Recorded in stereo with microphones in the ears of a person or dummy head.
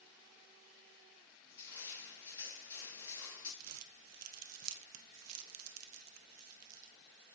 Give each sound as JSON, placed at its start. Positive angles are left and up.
{"t": 1.5, "sound": "crushing", "side_deg": 15, "distance_m": 1.9}
{"t": 3.6, "sound": "crumpling", "side_deg": -90, "distance_m": 0.6}